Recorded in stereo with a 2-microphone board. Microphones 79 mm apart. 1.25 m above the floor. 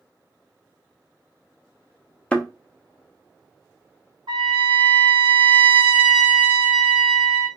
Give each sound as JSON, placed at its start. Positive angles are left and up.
{"t": 2.3, "sound": "a thud", "side_deg": 10, "distance_m": 0.7}
{"t": 4.3, "sound": "a trumpet", "side_deg": -85, "distance_m": 1.5}